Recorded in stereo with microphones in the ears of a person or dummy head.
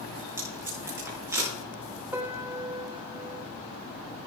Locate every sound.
0.4 s tape being pulled: 20° right (ahead or behind), 5.5 m
2.1 s a piano: 15° right (ahead or behind), 1.0 m